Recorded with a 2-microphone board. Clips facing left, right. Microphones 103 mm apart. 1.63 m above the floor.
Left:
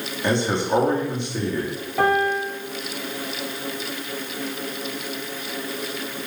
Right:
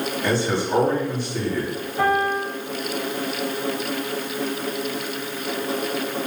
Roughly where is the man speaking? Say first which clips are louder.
Left 2 dB; left.